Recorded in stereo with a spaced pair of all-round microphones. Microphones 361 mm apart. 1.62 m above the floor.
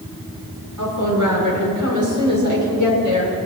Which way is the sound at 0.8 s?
55° right (ahead or behind).